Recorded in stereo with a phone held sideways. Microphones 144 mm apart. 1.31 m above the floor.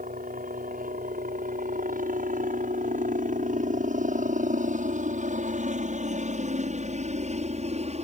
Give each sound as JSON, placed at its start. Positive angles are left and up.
{"t": 0.0, "sound": "a helicopter", "side_deg": -70}